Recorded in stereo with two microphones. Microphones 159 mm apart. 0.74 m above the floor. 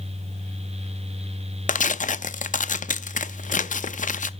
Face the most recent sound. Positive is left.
turn(degrees=55)  # may be behind; listen again after turning